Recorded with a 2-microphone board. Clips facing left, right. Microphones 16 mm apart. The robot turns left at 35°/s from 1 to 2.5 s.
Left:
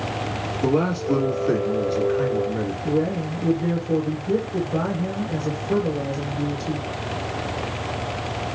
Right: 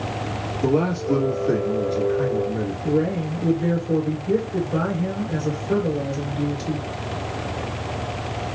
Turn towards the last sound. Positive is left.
turn(degrees=-40)  # may be behind; listen again after turning